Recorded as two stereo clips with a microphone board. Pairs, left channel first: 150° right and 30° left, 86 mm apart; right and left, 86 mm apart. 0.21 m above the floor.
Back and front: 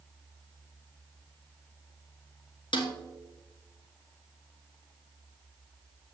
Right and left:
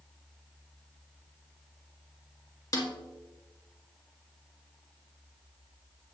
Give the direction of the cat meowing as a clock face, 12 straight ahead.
I don't hear a cat meowing.